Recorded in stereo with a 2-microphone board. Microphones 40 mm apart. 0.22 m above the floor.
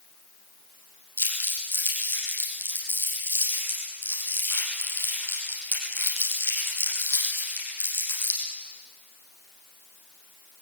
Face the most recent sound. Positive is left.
turn(degrees=80)